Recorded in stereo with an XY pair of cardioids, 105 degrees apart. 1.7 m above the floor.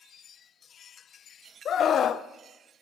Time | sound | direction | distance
1.6 | a scream | 55° left | 0.7 m